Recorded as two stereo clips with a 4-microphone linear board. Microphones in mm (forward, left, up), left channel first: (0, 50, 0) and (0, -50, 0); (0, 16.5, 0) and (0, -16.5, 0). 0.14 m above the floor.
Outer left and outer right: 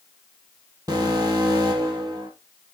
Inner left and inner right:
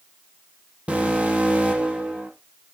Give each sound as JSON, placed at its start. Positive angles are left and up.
{"t": 0.9, "sound": "an alarm", "side_deg": -35, "distance_m": 5.0}